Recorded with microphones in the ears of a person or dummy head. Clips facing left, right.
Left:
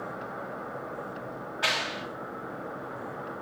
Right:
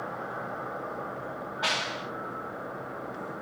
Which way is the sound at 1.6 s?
35° left (ahead or behind).